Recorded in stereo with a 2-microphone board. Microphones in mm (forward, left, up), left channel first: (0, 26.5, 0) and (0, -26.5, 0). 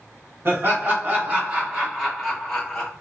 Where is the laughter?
50° right (ahead or behind), 1.2 m; by 2.9 s 15° left (ahead or behind), 1.1 m.